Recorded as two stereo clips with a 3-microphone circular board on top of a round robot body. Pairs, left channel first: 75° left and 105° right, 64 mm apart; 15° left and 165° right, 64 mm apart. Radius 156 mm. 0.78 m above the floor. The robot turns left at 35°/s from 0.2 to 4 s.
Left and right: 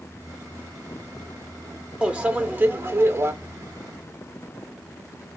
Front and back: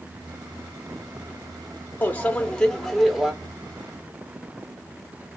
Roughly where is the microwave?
Ahead right.